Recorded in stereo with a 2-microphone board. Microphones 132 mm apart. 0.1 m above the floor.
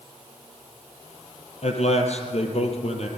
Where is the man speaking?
55° left (ahead or behind), 3.5 m.